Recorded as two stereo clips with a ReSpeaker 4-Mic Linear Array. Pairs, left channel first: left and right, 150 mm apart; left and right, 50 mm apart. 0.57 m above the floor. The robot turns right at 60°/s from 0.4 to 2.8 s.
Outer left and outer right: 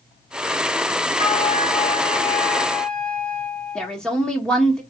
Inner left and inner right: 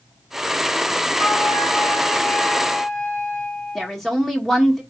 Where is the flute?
65° left, 1.5 m; by 4.0 s 165° left, 1.5 m.